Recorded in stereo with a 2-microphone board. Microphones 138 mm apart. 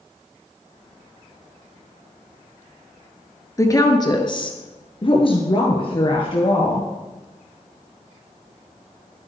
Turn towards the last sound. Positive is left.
turn(degrees=35)  # may be behind; listen again after turning